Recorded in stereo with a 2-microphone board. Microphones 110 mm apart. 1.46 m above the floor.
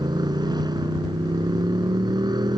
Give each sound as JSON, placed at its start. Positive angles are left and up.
{"t": 0.0, "sound": "a motorcycle", "side_deg": -40}